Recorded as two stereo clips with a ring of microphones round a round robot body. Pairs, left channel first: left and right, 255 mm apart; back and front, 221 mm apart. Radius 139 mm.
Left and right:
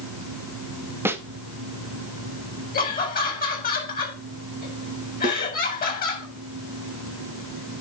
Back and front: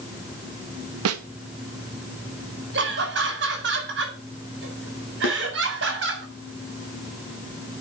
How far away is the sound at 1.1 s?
About 0.9 m.